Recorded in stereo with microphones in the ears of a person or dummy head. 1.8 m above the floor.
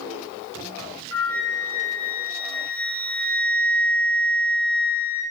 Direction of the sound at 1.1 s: 55° left (ahead or behind).